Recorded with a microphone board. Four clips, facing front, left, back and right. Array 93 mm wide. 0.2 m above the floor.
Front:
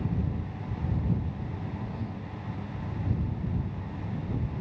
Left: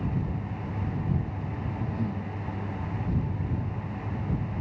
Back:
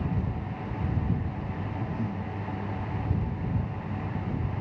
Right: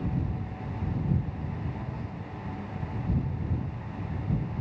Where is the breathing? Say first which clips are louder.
Left 6 dB, back 4 dB; 110° left.